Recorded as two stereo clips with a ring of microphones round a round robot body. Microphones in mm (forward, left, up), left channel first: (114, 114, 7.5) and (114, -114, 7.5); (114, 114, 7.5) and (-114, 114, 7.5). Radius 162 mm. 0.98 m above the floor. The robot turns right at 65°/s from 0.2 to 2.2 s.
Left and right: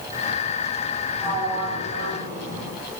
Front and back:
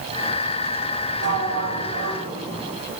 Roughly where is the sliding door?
Behind.